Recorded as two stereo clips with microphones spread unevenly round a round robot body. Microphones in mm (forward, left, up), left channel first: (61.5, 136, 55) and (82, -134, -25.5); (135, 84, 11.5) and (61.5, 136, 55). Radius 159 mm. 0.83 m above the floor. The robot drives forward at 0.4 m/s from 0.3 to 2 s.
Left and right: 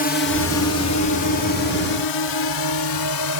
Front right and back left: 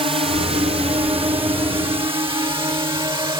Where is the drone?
160° left; by 3.4 s 105° left.